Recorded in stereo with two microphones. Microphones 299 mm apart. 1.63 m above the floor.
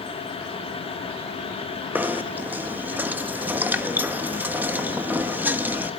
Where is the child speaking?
I don't hear a child speaking.